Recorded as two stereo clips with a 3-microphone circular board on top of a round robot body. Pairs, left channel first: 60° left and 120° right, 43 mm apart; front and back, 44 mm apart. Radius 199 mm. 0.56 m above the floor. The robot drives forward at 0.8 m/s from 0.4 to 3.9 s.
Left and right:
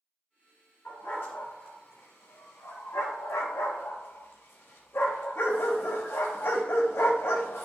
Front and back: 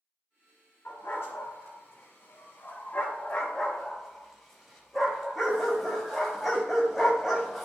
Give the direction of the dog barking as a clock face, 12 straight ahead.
11 o'clock.